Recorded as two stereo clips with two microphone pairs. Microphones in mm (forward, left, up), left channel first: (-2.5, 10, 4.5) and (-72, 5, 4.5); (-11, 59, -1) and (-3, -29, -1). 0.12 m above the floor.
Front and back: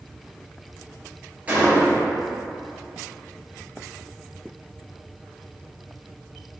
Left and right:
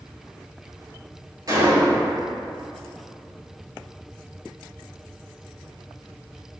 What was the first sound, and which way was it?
A gunshot, 115° right.